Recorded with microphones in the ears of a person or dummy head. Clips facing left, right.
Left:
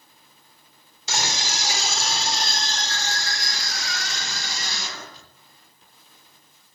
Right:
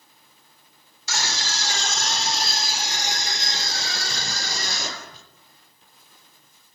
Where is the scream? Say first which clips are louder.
Left 2 dB; 25° left (ahead or behind), 4 m; by 5.2 s 50° right (ahead or behind), 5.5 m.